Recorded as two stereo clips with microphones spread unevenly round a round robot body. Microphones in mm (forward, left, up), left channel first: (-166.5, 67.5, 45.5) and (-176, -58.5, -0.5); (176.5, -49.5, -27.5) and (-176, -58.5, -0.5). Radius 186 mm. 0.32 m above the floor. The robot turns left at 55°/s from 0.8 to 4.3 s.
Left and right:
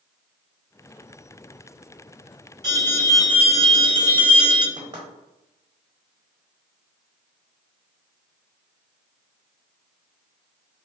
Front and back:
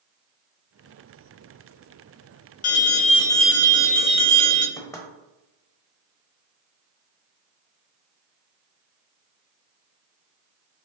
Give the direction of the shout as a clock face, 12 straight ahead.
I don't hear a shout.